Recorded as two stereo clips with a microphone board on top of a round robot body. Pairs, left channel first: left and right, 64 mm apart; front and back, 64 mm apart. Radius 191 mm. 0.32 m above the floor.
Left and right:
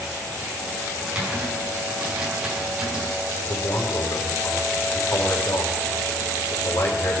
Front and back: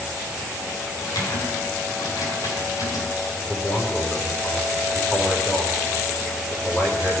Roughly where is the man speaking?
Left.